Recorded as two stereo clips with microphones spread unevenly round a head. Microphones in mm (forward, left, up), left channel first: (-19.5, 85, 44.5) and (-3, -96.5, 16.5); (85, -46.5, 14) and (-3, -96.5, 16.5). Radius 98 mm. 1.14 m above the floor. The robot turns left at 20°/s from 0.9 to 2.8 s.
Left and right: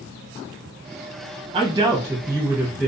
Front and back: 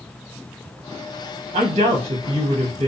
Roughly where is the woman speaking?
Behind right.